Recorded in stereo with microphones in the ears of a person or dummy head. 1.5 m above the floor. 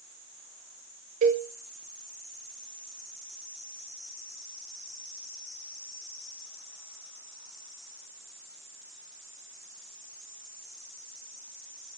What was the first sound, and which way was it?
A cowbell, 35° right (ahead or behind).